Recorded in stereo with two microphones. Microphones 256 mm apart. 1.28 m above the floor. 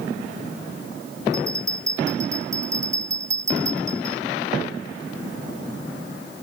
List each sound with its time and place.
1.3 s a bell: 10° right (ahead or behind)